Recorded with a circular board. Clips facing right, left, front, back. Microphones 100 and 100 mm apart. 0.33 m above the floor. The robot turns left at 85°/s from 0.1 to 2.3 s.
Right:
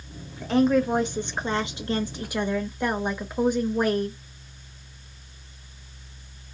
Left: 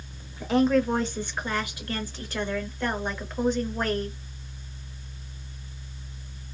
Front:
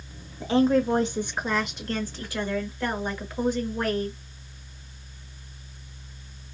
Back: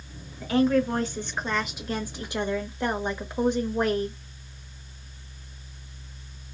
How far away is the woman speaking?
About 0.9 m.